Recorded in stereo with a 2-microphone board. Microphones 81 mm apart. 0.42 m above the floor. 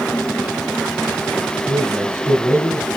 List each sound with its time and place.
1.7 s a man speaking: 25° left (ahead or behind), 2 m